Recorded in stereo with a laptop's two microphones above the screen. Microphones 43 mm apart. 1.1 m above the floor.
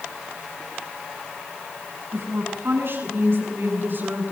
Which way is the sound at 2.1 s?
65° right (ahead or behind).